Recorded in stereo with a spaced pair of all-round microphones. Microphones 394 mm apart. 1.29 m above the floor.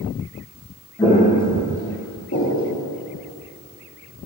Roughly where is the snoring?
No snoring in this recording.